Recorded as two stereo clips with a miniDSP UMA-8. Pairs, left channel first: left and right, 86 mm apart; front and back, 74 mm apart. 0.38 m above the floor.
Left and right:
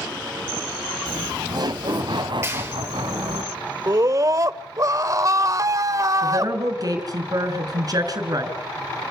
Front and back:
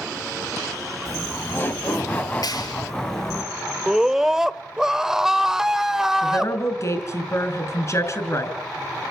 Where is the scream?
100° right, 1.0 m.